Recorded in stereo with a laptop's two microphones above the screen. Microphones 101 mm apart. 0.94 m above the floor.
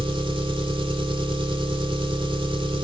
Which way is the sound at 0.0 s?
50° right (ahead or behind).